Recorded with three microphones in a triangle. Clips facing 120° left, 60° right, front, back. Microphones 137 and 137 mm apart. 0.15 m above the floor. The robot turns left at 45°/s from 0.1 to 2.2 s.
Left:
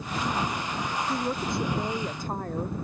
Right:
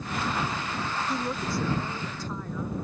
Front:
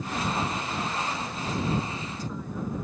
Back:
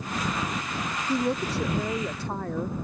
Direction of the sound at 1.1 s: 150° right.